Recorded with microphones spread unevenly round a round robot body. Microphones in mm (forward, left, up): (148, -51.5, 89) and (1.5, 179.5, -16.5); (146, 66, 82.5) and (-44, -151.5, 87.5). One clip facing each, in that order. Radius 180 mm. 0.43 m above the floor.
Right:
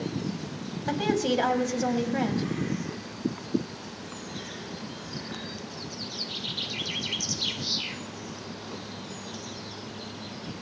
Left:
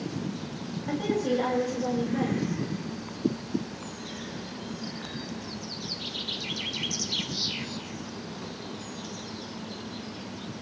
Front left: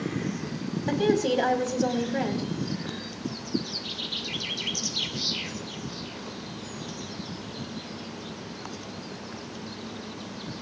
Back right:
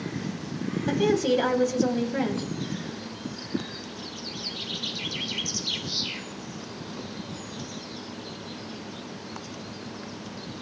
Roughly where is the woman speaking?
Ahead right.